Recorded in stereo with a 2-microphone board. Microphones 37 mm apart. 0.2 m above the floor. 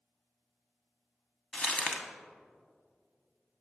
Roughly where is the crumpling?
Left.